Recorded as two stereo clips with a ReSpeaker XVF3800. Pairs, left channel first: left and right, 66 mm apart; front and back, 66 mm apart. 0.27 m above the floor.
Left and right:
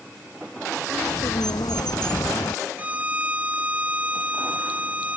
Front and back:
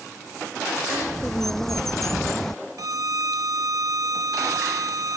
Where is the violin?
155° right.